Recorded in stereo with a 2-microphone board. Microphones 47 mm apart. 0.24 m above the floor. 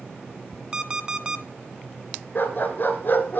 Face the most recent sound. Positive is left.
turn(degrees=50)  # may be behind; listen again after turning